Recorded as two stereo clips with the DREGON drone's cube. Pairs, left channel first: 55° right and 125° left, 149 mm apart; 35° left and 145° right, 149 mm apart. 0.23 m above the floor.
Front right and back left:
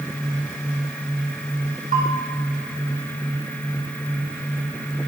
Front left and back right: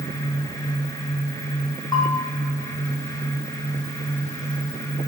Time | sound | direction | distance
1.9 | a bell | 100° left | 4 m